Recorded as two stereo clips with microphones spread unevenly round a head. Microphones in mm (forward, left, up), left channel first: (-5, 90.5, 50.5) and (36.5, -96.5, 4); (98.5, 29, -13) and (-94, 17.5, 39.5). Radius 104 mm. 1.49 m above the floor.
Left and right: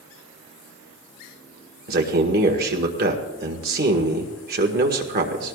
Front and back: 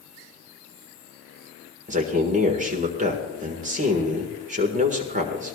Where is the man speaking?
120° right, 1.6 m.